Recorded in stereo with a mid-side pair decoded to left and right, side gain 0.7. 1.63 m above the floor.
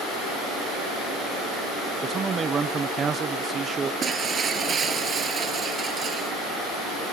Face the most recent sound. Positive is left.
turn(degrees=-30)